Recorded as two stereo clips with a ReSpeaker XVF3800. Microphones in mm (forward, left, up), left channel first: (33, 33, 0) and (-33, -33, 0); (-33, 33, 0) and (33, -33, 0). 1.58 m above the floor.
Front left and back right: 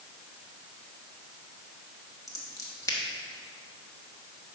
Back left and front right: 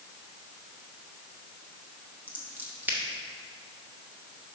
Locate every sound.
2.3 s scissors: 15° left, 1.1 m